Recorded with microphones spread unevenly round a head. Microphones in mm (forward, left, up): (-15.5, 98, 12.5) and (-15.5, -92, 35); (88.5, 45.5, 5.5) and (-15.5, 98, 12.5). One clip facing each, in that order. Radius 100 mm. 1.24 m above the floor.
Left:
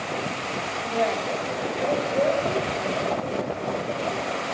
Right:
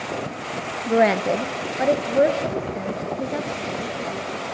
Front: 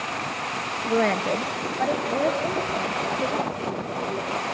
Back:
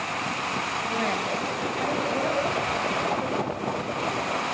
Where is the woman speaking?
75° right, 0.7 m; by 4.4 s 95° right, 2.5 m.